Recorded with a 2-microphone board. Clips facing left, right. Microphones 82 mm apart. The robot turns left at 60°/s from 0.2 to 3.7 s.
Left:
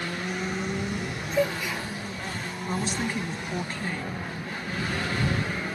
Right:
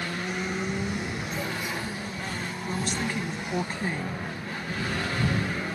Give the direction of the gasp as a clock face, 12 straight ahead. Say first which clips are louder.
Left 10 dB; 9 o'clock.